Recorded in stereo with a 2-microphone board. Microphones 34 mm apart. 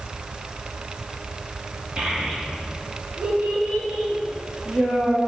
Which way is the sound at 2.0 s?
35° right (ahead or behind).